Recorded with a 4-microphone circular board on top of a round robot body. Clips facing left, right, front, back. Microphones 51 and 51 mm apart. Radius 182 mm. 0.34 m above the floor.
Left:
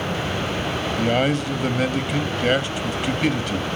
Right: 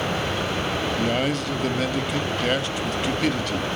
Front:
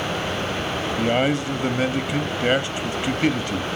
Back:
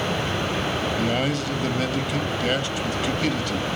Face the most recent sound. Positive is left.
turn(degrees=25)